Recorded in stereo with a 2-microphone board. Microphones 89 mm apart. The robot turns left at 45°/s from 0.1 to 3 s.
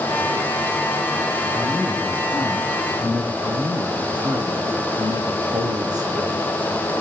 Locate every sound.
1.5 s a man speaking: 50° left, 7.5 m; by 3.3 s 20° right, 7.5 m
3.4 s a man speaking: 50° right (ahead or behind), 4.5 m